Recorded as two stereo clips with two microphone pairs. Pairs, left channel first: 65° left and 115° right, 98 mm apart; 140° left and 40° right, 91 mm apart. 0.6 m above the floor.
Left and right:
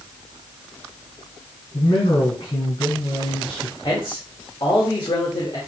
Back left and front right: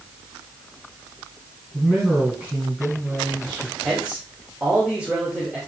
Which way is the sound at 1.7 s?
40° left.